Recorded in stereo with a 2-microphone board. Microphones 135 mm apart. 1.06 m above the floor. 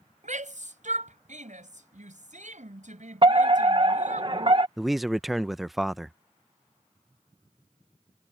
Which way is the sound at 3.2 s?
40° right (ahead or behind).